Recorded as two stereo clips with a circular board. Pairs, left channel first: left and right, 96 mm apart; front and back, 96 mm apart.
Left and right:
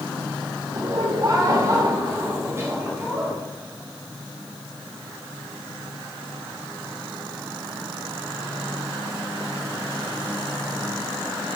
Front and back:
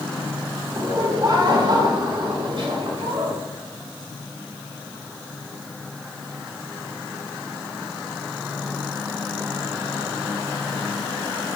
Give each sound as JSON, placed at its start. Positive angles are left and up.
{"t": 0.8, "sound": "laughter", "azimuth_deg": -130, "distance_m": 2.5}